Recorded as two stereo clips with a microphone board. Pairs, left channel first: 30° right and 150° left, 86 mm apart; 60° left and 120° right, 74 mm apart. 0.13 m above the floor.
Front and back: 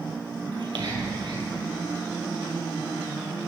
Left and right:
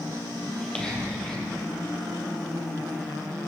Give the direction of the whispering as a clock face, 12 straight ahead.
7 o'clock.